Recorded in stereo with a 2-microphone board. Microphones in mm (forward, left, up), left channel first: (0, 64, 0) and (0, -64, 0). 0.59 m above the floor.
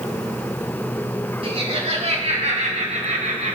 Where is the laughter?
50° right (ahead or behind), 4.5 m; by 3.6 s 70° right (ahead or behind), 2.5 m.